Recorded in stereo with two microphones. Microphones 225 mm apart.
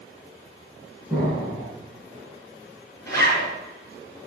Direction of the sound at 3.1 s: 15° left (ahead or behind).